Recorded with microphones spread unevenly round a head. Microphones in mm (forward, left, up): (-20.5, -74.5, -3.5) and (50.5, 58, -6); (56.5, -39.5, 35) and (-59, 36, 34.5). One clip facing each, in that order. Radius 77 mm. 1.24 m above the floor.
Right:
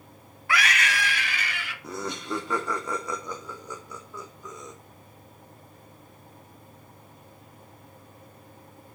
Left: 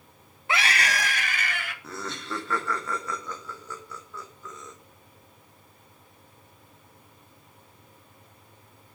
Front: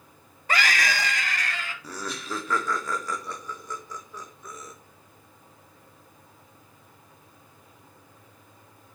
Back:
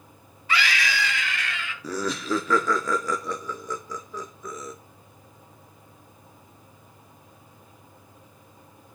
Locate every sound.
0.5 s a scream: straight ahead, 0.8 m; by 1.7 s 20° left, 2 m
1.8 s laughter: 165° left, 0.6 m